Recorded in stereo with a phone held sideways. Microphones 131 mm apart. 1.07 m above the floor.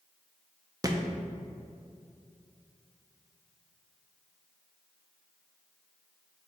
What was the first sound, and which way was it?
A thud, 25° right (ahead or behind).